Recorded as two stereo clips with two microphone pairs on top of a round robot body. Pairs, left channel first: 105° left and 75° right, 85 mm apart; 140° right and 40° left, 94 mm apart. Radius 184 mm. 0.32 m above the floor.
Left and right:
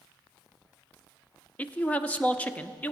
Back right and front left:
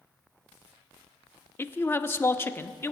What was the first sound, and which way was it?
A man speaking, 160° left.